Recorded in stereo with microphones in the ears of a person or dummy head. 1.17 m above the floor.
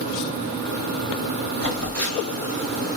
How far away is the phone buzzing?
About 1.7 m.